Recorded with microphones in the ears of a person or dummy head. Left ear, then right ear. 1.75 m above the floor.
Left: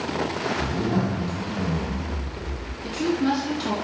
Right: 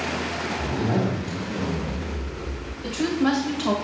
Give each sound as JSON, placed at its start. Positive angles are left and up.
{"t": 0.6, "sound": "a zipper", "side_deg": 0, "distance_m": 1.6}
{"t": 2.8, "sound": "a woman speaking", "side_deg": -25, "distance_m": 1.1}